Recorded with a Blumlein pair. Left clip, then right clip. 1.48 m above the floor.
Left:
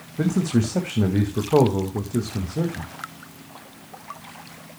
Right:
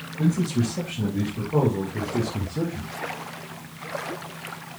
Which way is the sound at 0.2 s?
55° left.